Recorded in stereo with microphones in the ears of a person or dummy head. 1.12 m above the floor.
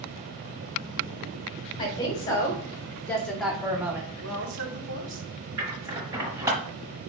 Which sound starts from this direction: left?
A woman speaking, at 1.8 s.